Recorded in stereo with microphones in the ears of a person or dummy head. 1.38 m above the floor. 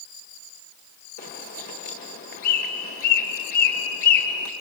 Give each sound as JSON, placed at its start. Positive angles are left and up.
{"t": 1.2, "sound": "a bird", "side_deg": 45, "distance_m": 1.9}